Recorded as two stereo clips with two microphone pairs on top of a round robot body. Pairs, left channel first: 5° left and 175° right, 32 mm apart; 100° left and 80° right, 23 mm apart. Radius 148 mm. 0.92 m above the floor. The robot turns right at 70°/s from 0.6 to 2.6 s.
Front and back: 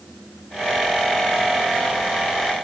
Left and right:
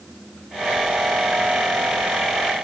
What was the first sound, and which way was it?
Only background noise.